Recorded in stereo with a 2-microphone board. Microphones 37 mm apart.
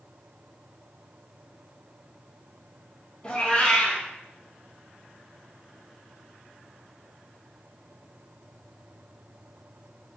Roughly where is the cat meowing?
Left.